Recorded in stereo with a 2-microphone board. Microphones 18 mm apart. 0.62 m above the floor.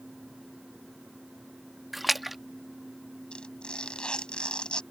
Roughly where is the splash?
Centre.